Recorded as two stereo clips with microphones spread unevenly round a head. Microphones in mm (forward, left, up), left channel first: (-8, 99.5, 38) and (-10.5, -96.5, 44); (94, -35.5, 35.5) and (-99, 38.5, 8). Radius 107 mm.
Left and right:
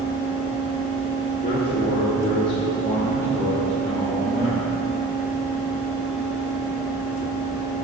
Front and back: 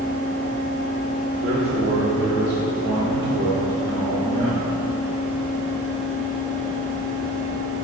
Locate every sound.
1.4 s a man speaking: 140° left, 2.5 m; by 4.7 s straight behind, 3 m